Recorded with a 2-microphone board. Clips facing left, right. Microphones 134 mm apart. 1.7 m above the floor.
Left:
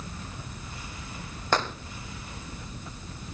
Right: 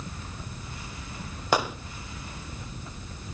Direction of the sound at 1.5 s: 10° right (ahead or behind).